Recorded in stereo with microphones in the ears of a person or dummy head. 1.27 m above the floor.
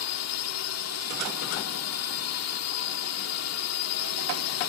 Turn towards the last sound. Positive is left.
turn(degrees=85)